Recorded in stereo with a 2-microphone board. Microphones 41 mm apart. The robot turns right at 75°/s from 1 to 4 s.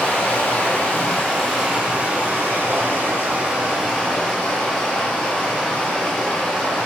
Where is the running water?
145° left, 1.7 m; by 6.9 s 10° left, 1.7 m.